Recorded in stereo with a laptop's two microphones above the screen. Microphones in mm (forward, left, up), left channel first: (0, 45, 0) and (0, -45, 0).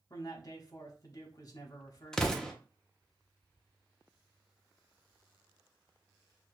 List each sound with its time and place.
0.1 s a man speaking: 40° left (ahead or behind), 1.1 m
2.1 s an explosion: 5° left (ahead or behind), 0.7 m